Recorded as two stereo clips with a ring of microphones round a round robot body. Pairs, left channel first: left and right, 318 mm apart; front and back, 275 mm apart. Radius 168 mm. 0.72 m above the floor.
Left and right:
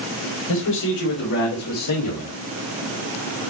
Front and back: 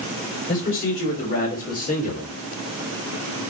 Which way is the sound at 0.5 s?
55° left.